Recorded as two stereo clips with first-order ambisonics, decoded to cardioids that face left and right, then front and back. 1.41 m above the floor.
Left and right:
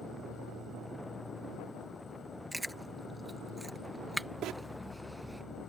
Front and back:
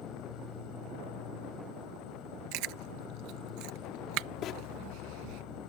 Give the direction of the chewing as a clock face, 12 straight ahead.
6 o'clock.